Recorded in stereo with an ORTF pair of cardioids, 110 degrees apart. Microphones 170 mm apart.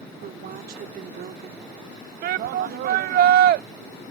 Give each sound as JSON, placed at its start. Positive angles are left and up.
{"t": 0.2, "sound": "a woman speaking", "azimuth_deg": -60}
{"t": 2.2, "sound": "a shout", "azimuth_deg": -65}